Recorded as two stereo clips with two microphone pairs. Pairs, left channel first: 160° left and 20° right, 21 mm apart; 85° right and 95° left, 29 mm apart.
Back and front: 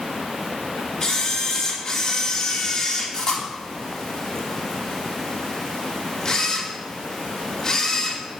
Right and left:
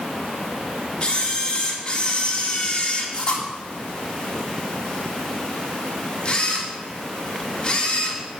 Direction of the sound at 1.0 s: 140° right.